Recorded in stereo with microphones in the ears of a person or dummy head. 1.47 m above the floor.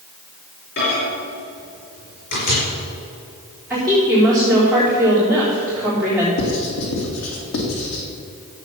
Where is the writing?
75° left (ahead or behind), 2.5 m.